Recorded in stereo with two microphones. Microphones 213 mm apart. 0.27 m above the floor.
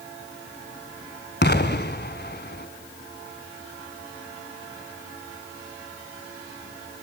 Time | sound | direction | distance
1.4 | an explosion | 50° left (ahead or behind) | 1.4 m